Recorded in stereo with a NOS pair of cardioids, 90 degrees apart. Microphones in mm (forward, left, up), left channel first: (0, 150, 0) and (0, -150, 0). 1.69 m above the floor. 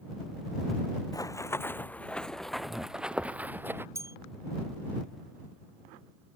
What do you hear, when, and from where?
1.1 s running footsteps: 10° left; by 3.9 s 5° right
4.0 s a bell: 10° right